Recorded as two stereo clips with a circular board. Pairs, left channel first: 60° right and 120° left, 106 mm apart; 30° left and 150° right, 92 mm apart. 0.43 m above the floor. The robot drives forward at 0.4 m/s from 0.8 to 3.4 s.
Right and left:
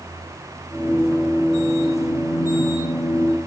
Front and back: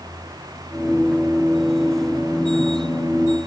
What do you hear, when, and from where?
Only background noise.